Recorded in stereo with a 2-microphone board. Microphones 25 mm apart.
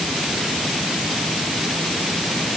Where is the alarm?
No alarm in this recording.